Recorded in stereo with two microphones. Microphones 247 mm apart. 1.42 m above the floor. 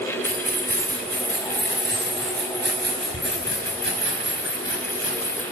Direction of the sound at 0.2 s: 35° right (ahead or behind).